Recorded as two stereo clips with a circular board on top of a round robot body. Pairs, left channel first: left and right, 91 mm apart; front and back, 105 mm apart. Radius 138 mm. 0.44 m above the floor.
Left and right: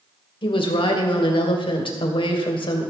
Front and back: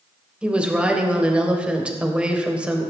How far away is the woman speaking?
About 3 m.